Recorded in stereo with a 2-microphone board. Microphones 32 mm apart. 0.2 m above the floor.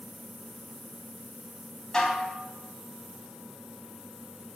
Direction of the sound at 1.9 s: 20° left (ahead or behind).